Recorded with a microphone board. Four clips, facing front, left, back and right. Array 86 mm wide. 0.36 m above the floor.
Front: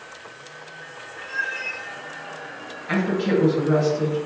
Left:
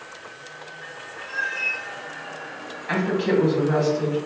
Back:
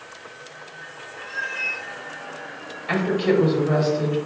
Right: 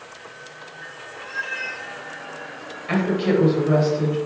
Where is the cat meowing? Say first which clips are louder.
Left 1 dB, front 1 dB; 115° right, 1.4 m.